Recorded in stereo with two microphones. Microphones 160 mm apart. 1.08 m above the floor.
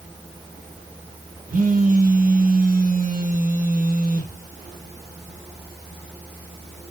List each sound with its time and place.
1.5 s a phone buzzing: 55° right (ahead or behind), 0.8 m